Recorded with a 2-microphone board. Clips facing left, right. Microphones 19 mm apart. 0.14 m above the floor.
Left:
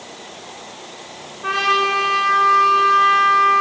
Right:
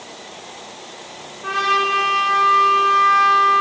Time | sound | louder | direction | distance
1.4 | a trumpet | left 1 dB | 25° left (ahead or behind) | 10 m